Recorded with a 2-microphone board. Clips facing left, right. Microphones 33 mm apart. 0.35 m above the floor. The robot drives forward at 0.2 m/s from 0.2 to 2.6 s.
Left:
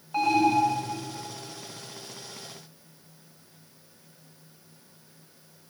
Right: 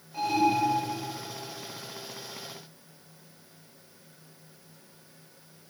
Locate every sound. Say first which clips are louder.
0.1 s an alarm: left 3 dB; 60° left (ahead or behind), 3 m